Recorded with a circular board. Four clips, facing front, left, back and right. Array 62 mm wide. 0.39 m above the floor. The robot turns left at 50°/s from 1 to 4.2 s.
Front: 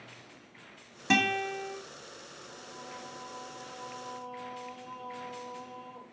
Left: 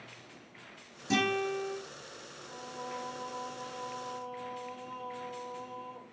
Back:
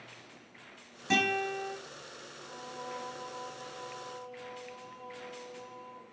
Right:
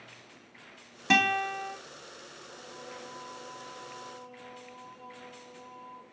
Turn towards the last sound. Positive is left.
turn(degrees=50)